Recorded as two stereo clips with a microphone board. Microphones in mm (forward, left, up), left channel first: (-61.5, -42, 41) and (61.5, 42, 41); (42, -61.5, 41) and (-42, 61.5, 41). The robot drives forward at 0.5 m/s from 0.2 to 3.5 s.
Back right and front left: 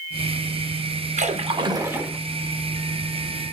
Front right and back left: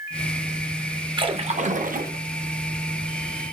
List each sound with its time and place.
1.2 s a splash: 70° left, 0.6 m; by 2.2 s 120° left, 0.6 m